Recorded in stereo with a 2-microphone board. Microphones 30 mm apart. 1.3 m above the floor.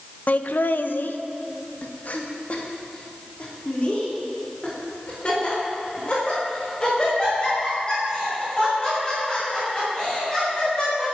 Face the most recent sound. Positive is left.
turn(degrees=25)  # may be behind; listen again after turning